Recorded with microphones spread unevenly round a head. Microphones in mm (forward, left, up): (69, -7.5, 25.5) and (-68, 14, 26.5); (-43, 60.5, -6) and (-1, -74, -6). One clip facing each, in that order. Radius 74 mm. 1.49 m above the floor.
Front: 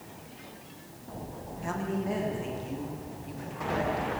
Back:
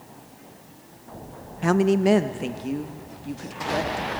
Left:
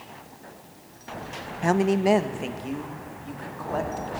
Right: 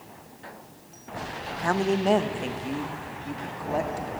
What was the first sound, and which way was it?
A woman speaking, 170° left.